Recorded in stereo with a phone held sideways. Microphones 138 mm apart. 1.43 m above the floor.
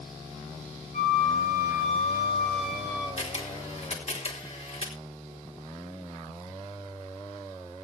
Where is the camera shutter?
50° left (ahead or behind), 4 m.